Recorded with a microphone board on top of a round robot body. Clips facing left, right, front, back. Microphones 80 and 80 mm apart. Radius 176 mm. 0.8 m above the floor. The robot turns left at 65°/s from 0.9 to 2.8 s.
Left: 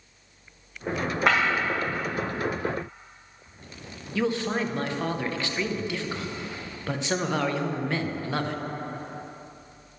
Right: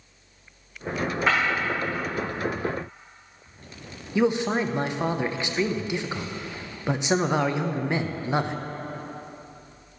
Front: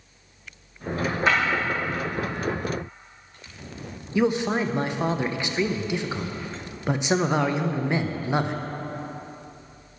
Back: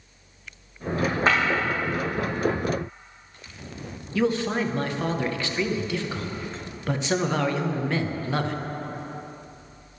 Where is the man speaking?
45° right, 0.7 m.